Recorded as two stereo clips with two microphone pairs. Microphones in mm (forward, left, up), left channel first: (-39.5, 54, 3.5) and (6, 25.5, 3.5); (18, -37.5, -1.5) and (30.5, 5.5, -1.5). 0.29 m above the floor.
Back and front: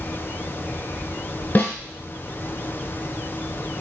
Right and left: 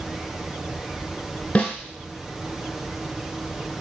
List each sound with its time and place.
1.6 s a snare drum: 165° right, 0.6 m